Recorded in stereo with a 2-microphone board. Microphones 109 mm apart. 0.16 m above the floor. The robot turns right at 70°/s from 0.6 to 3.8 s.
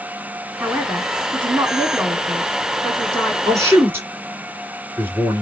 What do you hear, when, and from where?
0.6 s a man speaking: centre (ahead or behind), 1.3 m; by 3.4 s 5° left (ahead or behind), 1.3 m
3.5 s a man speaking: 35° right (ahead or behind), 2 m; by 5.4 s 20° right (ahead or behind), 2 m